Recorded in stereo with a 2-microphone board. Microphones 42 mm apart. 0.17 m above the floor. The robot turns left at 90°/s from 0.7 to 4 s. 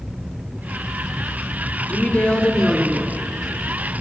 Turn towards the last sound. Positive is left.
turn(degrees=-115)